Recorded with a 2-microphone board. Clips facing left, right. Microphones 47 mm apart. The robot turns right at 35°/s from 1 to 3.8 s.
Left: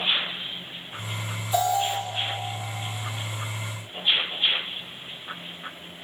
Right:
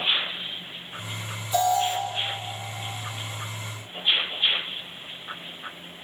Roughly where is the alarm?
Centre.